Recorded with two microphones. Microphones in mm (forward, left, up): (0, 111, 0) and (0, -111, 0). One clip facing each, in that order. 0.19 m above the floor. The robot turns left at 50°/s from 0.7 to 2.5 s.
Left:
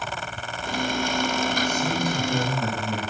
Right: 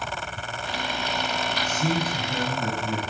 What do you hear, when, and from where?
1.6 s a man speaking: 170° right, 8.5 m; by 3.0 s 145° left, 8.5 m